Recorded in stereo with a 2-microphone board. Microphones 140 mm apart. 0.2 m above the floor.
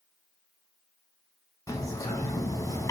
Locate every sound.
1.7 s a bird: 25° left (ahead or behind), 0.6 m